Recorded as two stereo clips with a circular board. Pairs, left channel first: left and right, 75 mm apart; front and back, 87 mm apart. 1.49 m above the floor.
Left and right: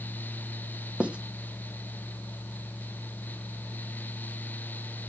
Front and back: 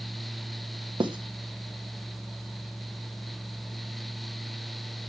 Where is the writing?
160° right, 0.9 m.